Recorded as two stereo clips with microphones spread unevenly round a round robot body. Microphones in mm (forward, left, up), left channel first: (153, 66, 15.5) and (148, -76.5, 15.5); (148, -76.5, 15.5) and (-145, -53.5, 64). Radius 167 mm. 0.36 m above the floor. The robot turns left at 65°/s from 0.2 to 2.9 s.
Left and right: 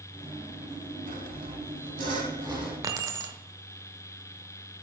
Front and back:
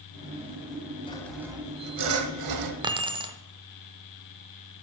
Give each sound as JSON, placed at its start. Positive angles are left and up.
{"t": 1.1, "sound": "sawing", "azimuth_deg": -75, "distance_m": 0.9}
{"t": 2.8, "sound": "keys jangling", "azimuth_deg": -110, "distance_m": 0.7}